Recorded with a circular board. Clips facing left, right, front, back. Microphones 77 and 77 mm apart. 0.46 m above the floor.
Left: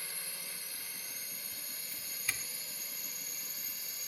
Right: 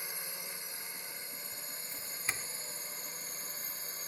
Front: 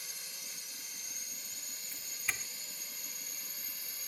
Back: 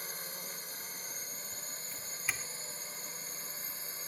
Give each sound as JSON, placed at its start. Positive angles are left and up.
{"t": 0.0, "sound": "a drone", "azimuth_deg": -155}
{"t": 1.9, "sound": "a doorbell", "azimuth_deg": -95}